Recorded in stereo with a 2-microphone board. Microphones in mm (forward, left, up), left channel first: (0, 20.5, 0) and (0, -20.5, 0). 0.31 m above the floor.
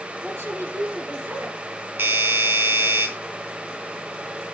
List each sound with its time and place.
0.2 s a woman speaking: 75° right (ahead or behind), 5 m
2.0 s a doorbell: 70° right (ahead or behind), 3.5 m